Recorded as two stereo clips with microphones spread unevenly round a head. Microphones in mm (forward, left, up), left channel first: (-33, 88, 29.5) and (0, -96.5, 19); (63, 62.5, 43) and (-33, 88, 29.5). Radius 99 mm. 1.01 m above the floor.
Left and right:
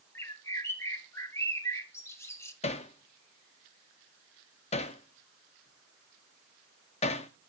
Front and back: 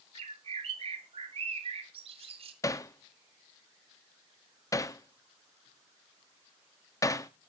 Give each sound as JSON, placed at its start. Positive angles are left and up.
{"t": 0.1, "sound": "a bird", "azimuth_deg": 175, "distance_m": 1.5}
{"t": 2.6, "sound": "hammering", "azimuth_deg": 40, "distance_m": 0.9}